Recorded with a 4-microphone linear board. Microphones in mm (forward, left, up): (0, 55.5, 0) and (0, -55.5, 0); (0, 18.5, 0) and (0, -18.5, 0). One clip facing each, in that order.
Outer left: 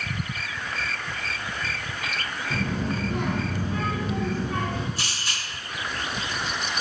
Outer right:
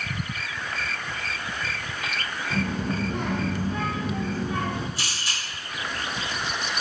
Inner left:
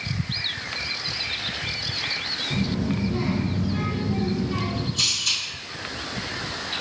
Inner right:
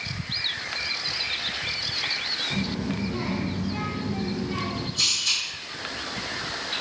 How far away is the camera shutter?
About 1.9 m.